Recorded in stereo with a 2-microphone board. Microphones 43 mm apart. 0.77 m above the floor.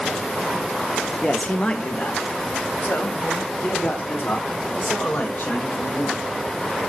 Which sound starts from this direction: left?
A man speaking, at 1.2 s.